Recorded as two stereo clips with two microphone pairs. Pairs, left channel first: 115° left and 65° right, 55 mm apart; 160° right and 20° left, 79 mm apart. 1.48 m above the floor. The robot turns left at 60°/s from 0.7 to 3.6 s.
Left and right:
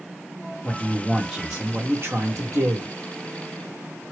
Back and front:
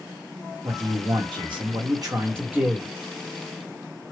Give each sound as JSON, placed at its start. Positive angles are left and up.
{"t": 0.6, "sound": "a man speaking", "azimuth_deg": 60, "distance_m": 1.5}